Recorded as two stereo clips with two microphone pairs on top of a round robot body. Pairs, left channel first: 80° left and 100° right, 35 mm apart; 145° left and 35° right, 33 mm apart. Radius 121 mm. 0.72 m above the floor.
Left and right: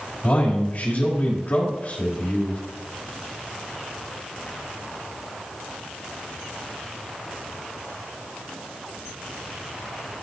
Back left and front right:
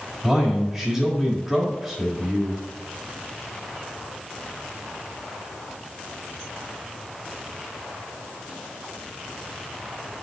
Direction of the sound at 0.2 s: 50° left.